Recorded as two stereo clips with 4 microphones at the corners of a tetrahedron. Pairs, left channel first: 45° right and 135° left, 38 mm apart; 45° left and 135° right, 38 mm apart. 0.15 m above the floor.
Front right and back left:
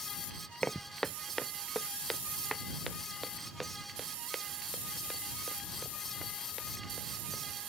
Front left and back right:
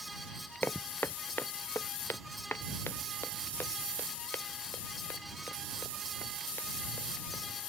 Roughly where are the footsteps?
Ahead.